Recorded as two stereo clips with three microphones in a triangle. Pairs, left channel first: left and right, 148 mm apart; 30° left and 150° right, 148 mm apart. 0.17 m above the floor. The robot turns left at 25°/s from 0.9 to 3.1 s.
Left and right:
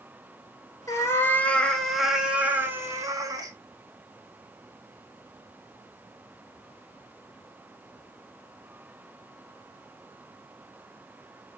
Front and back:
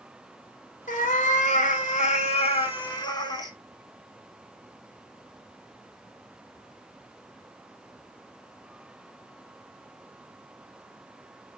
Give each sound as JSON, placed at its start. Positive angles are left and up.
{"t": 0.9, "sound": "a cat meowing", "azimuth_deg": 25, "distance_m": 0.6}